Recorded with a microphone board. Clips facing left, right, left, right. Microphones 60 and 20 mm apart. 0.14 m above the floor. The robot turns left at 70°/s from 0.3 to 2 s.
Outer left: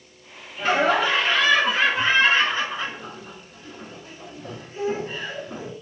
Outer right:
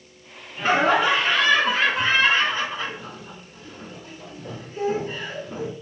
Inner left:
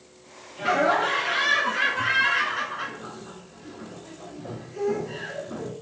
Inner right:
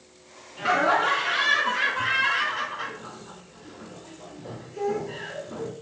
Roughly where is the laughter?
Behind right.